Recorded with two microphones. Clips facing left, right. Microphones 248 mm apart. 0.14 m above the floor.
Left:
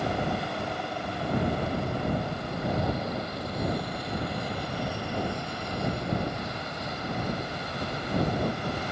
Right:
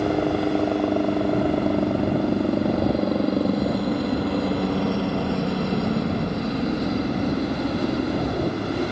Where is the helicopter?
65° right (ahead or behind); by 8.9 s 70° right (ahead or behind).